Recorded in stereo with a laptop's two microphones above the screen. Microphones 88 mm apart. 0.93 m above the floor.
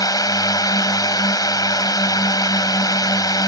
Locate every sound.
0.0 s a drone: 45° left (ahead or behind)